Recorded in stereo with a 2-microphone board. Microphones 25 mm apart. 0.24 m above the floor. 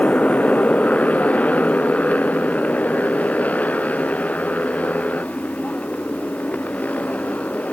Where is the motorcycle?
70° left (ahead or behind); by 7.7 s 85° left.